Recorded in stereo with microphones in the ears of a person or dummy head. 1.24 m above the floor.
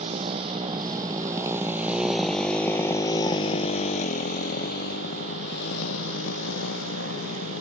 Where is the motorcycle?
25° right (ahead or behind); by 7.6 s 85° left.